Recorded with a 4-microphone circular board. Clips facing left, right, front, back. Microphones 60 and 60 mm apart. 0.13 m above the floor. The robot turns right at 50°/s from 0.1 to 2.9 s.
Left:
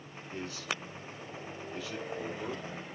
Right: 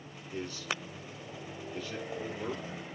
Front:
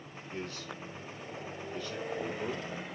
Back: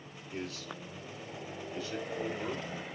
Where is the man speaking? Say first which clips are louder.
Right 1 dB, even; 95° left, 1.3 m; by 2.7 s 145° right, 1.3 m.